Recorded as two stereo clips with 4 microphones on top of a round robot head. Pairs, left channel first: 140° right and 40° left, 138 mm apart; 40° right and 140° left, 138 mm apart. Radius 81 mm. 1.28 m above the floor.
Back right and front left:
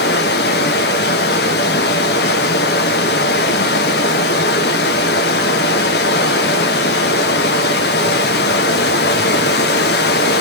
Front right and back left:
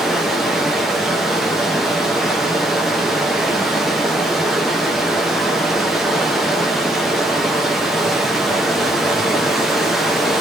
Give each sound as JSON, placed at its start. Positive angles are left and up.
{"t": 0.0, "sound": "running water", "azimuth_deg": -130, "distance_m": 0.8}